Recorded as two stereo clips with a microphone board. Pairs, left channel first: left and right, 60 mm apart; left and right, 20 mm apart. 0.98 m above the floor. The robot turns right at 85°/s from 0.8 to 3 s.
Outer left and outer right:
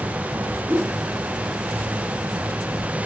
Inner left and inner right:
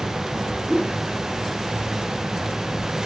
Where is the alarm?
I don't hear an alarm.